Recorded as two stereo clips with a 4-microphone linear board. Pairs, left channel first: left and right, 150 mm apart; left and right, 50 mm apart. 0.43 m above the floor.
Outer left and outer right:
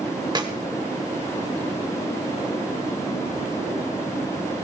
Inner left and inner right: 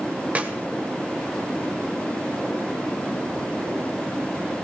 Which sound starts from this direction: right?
A clap, at 0.3 s.